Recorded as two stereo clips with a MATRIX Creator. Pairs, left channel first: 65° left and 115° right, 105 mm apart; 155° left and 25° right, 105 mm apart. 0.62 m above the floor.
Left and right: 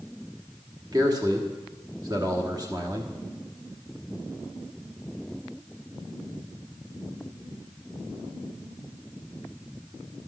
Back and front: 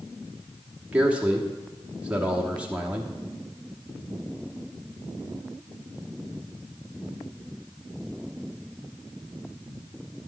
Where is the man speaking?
95° right, 1.2 m.